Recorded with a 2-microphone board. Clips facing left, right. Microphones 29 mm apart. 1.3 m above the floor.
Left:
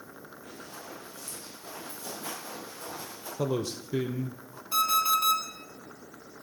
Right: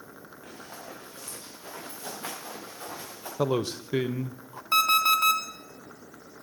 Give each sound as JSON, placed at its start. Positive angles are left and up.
{"t": 0.4, "sound": "running footsteps", "side_deg": -65, "distance_m": 6.5}
{"t": 3.4, "sound": "a man speaking", "side_deg": -40, "distance_m": 0.5}
{"t": 4.7, "sound": "an alarm clock", "side_deg": -55, "distance_m": 1.2}